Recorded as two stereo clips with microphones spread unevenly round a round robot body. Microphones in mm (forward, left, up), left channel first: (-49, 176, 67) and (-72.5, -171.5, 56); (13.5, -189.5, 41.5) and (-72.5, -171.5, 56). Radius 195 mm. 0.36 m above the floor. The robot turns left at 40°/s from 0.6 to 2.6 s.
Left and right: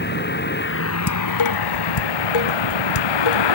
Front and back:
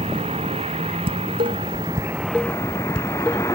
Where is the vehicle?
145° left; by 3.5 s 65° left.